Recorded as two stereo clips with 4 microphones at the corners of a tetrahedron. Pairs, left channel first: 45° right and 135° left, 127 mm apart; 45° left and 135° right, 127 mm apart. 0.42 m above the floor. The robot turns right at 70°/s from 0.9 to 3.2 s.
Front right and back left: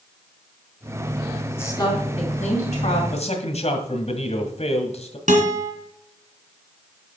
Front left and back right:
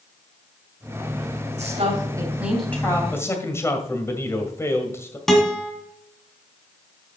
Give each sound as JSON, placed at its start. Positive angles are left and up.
{"t": 1.6, "sound": "a woman speaking", "azimuth_deg": -115, "distance_m": 3.5}
{"t": 3.1, "sound": "a man speaking", "azimuth_deg": -30, "distance_m": 1.8}
{"t": 5.3, "sound": "a guitar", "azimuth_deg": 130, "distance_m": 2.5}